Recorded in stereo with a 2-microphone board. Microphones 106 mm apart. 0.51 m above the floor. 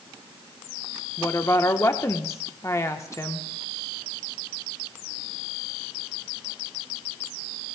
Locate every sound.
1.2 s a woman speaking: 30° left (ahead or behind), 1.1 m